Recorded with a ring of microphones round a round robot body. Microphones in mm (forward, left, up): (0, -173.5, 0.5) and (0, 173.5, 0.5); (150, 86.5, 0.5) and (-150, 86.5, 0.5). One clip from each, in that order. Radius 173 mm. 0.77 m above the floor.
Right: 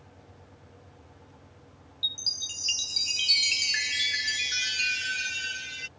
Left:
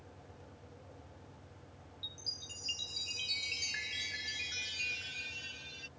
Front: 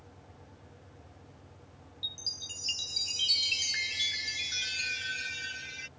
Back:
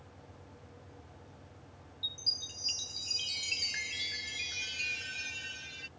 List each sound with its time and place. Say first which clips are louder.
2.0 s a chime: right 13 dB, back 2 dB; 75° right